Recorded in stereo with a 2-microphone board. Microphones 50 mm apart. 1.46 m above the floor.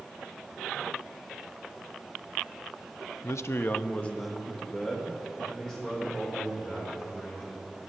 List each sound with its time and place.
3.2 s a man speaking: 70° left (ahead or behind), 0.6 m; by 7.7 s 5° left (ahead or behind), 6 m